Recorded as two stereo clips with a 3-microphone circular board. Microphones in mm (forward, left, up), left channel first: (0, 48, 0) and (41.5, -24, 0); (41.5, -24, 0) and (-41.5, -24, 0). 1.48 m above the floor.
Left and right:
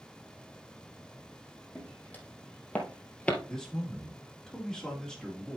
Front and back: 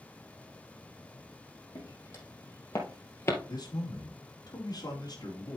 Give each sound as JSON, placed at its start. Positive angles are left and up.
{"t": 1.8, "sound": "footsteps", "azimuth_deg": 50, "distance_m": 4.0}
{"t": 3.5, "sound": "a man speaking", "azimuth_deg": 40, "distance_m": 2.5}